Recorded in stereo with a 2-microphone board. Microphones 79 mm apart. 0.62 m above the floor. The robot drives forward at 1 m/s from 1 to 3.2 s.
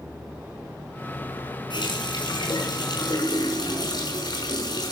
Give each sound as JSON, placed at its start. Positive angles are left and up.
{"t": 1.7, "sound": "a running tap", "side_deg": 80, "distance_m": 5.0}